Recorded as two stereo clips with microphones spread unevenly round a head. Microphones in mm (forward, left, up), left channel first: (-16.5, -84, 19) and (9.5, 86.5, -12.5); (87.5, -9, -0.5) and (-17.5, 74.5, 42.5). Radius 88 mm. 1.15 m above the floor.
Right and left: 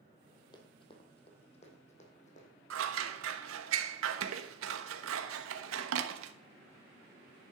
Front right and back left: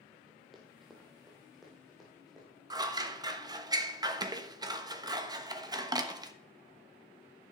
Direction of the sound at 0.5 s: 145° right.